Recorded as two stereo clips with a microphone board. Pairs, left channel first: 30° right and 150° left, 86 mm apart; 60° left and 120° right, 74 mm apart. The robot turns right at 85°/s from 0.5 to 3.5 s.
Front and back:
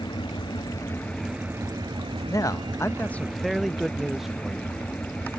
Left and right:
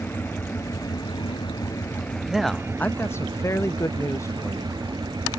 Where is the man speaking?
40° right; by 4.7 s 65° left.